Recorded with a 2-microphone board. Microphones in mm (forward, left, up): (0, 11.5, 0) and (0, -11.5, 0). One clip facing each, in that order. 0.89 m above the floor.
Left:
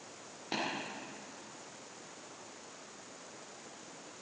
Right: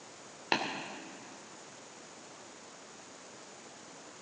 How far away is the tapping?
About 2 m.